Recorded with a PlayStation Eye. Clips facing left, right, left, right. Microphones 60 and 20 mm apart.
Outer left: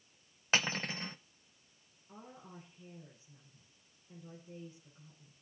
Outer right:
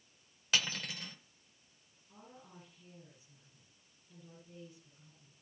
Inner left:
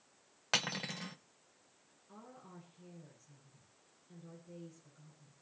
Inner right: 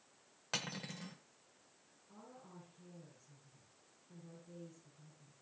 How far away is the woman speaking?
About 5.5 m.